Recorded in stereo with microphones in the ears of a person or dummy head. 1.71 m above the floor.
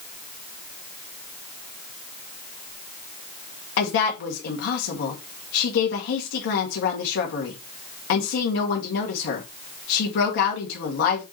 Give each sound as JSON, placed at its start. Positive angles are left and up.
{"t": 3.8, "sound": "a woman speaking", "side_deg": 75, "distance_m": 2.0}